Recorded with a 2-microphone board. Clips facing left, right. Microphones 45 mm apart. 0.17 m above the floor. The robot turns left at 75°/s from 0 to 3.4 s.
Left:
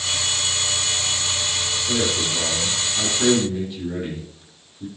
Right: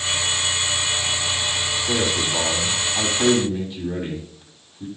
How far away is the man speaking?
About 5.5 m.